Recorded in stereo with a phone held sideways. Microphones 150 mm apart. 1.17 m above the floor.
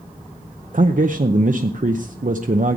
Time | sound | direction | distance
0.7 | a man speaking | 60° right (ahead or behind) | 0.6 m